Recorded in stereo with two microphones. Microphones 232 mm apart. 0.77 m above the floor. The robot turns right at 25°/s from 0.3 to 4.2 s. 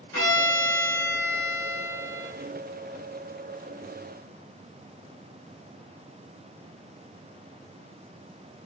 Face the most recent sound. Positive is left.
turn(degrees=-160)